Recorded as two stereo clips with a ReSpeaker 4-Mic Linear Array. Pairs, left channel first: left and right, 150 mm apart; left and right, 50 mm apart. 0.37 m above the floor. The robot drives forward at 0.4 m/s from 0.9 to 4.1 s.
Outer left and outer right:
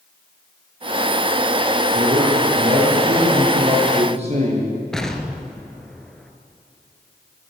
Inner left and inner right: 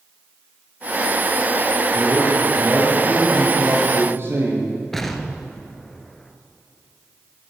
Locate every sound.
1.9 s a man speaking: 50° right (ahead or behind), 7 m; by 4.7 s 45° right (ahead or behind), 7.5 m
4.9 s an explosion: 5° left (ahead or behind), 1.8 m